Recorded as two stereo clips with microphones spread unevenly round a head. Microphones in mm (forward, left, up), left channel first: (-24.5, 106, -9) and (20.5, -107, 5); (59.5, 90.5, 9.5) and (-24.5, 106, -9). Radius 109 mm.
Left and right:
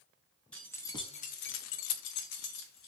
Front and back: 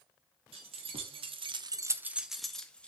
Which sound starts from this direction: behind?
Keys jangling, at 0.5 s.